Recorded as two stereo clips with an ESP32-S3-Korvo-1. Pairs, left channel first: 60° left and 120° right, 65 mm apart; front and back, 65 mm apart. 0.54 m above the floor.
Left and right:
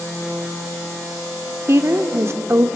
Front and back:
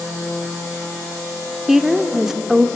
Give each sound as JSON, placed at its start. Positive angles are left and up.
{"t": 1.7, "sound": "a woman speaking", "azimuth_deg": -95, "distance_m": 1.5}